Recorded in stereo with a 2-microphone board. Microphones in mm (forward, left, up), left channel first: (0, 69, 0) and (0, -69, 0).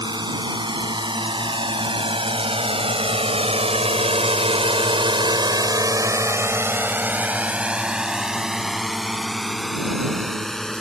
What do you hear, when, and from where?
0.0 s a drone: 30° right (ahead or behind); by 10.8 s 5° left (ahead or behind)